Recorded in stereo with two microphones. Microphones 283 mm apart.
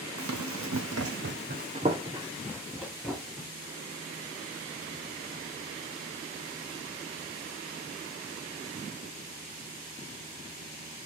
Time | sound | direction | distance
0.2 | running footsteps | 80° right | 0.6 m